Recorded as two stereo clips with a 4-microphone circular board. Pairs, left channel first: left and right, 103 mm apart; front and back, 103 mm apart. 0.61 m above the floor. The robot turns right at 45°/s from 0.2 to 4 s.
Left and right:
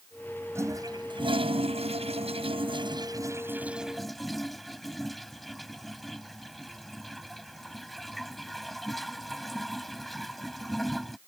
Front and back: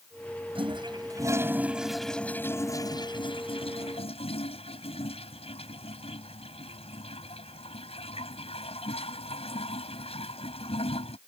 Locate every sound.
0.6 s a toilet flushing: 155° right; by 11.2 s straight ahead